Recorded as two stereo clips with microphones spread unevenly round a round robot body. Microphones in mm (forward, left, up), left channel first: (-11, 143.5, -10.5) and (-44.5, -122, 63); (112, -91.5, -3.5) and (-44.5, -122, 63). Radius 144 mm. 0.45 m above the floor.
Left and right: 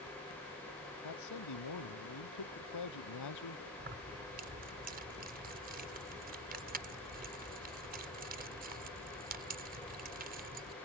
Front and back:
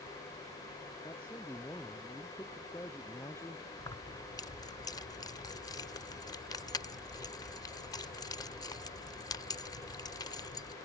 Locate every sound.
1.0 s a man speaking: 90° left; by 3.7 s 95° left
3.8 s keys jangling: 30° right